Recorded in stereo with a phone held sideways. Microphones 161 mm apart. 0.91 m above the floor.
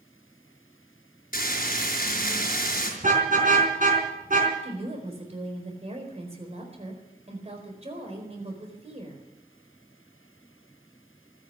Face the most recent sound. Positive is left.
turn(degrees=-40)  # may be behind; listen again after turning